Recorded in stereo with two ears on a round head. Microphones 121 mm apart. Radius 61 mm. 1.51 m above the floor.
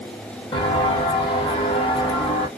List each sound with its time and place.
0.5 s footsteps: 35° left (ahead or behind), 2.0 m